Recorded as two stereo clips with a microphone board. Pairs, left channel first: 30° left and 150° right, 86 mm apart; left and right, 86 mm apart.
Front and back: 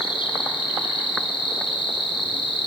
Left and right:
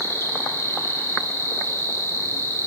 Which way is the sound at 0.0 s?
30° left.